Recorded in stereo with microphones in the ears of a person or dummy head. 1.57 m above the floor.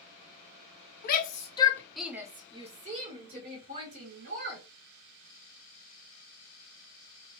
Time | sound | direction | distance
1.0 | a shout | 55° left (ahead or behind) | 0.8 m